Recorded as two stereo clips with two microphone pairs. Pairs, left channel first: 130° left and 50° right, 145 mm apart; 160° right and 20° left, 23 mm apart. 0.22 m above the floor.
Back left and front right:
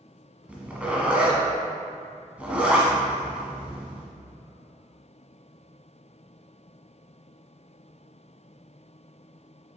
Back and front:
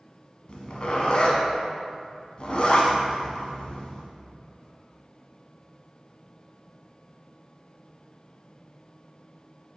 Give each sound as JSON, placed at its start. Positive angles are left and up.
{"t": 0.5, "sound": "a zipper", "azimuth_deg": -130, "distance_m": 1.2}